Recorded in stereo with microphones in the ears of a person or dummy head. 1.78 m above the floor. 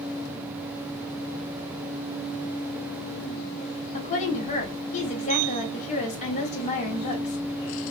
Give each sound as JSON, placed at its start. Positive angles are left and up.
{"t": 3.9, "sound": "a woman speaking", "side_deg": 45, "distance_m": 2.5}